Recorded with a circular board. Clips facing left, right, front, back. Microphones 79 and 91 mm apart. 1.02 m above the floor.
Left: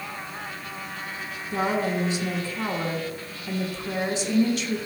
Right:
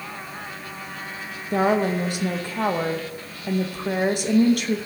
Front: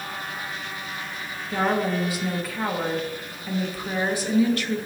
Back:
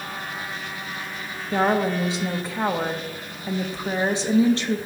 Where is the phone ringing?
I don't hear a phone ringing.